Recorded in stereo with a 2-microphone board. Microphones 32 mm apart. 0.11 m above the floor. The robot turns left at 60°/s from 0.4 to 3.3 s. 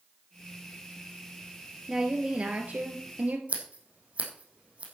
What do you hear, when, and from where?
1.9 s a woman speaking: 20° right, 2.0 m; by 3.4 s 105° right, 2.0 m
3.5 s scissors: 45° right (ahead or behind), 3 m